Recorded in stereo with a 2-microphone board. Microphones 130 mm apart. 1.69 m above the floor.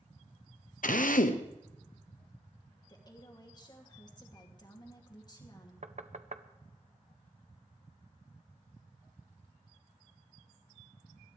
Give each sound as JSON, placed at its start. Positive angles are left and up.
{"t": 0.8, "sound": "a drill", "side_deg": 75, "distance_m": 0.9}
{"t": 2.9, "sound": "a woman speaking", "side_deg": 30, "distance_m": 2.5}
{"t": 5.8, "sound": "knocking", "side_deg": -60, "distance_m": 0.8}